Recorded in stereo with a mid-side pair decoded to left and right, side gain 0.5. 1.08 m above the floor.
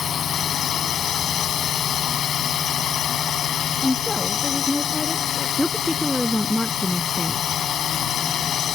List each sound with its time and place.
0.0 s a drone: 55° left
3.8 s a woman speaking: 20° left
5.6 s a woman speaking: 10° left